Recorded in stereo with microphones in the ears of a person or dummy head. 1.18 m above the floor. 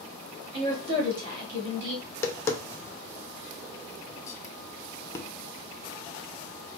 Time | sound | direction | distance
0.5 | a woman speaking | 55° right (ahead or behind) | 2 m
2.0 | tapping | 20° left (ahead or behind) | 0.6 m